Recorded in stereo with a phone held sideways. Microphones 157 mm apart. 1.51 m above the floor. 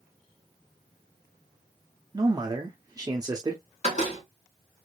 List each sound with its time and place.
2.1 s a man speaking: 25° right (ahead or behind), 0.7 m
3.8 s a door slam: 45° left (ahead or behind), 2.0 m